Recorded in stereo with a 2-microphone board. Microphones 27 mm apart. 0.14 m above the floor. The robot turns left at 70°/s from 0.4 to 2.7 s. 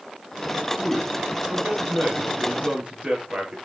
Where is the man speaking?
Straight ahead, 3.5 m; by 3.5 s 135° right, 3.5 m.